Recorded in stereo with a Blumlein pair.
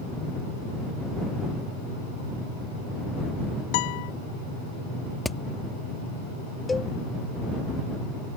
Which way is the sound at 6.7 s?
10° left.